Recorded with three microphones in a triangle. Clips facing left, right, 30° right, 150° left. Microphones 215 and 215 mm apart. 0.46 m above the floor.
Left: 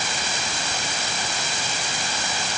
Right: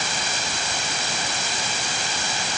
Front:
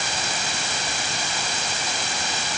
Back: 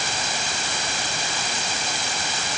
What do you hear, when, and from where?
Only background noise.